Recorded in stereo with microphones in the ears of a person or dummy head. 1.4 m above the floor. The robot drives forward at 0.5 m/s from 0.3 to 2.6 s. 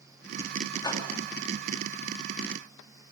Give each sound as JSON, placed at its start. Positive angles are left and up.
{"t": 0.8, "sound": "a whoosh", "side_deg": 20, "distance_m": 2.5}